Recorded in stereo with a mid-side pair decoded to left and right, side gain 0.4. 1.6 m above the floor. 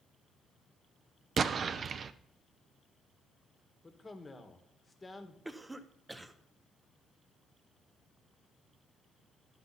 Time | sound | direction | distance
1.4 | an explosion | 55° right | 0.6 m
3.8 | a man speaking | 25° left | 1.7 m
5.5 | a cough | 15° right | 1.2 m